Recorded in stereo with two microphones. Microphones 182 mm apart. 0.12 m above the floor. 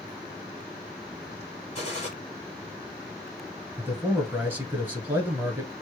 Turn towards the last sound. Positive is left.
turn(degrees=-10)  # may be behind; listen again after turning